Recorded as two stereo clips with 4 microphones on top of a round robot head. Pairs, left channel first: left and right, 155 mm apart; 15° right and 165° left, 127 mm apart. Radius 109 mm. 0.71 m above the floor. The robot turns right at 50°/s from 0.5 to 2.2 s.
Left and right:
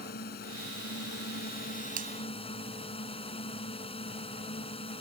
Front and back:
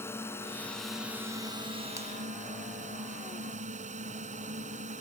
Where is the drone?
60° left; by 5.0 s 145° left.